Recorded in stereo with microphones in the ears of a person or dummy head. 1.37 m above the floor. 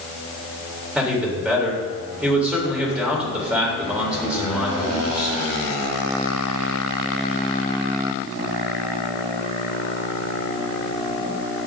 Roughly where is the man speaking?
Centre.